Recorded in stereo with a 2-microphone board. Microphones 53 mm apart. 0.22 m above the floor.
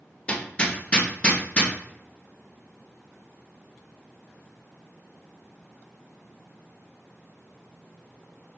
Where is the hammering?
20° left (ahead or behind), 0.9 m.